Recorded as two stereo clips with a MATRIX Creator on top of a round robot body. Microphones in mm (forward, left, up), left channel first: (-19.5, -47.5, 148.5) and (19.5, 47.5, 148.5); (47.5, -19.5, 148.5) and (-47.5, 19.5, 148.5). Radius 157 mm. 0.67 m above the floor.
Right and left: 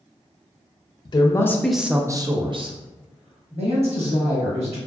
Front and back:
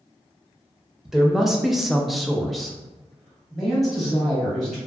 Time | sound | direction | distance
1.1 | a woman speaking | 115° right | 0.7 m